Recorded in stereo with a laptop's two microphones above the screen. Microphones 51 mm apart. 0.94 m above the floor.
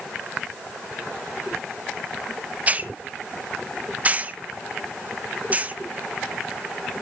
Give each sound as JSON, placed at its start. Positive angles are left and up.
{"t": 2.7, "sound": "a hiss", "side_deg": -30, "distance_m": 0.5}